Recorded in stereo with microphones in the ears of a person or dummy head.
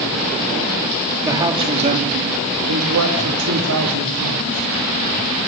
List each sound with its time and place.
1.2 s a man speaking: 15° right (ahead or behind), 2.5 m; by 4.7 s 65° right (ahead or behind), 4.5 m